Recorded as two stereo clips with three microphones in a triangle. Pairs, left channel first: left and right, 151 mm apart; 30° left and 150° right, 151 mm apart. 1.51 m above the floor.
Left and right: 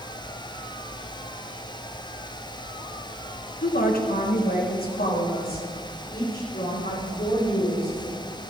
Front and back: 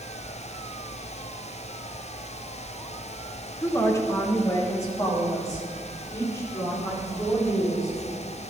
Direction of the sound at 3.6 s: 100° left.